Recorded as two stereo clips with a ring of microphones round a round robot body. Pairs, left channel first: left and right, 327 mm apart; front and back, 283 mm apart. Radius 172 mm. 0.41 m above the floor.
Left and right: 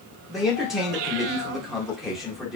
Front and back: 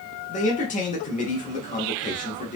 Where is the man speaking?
Straight ahead, 0.8 m.